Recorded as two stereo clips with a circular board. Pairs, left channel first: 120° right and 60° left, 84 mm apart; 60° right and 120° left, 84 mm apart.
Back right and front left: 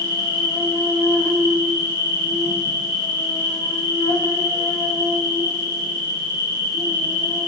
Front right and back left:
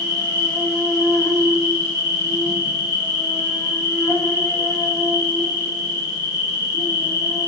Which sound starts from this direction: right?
An insect, at 0.0 s.